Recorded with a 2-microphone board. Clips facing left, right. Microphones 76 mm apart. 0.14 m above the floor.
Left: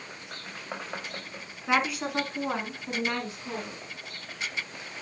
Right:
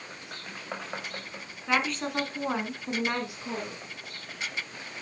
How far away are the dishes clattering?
I don't hear dishes clattering.